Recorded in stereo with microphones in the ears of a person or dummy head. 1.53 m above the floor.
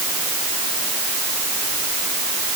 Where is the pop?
I don't hear a pop.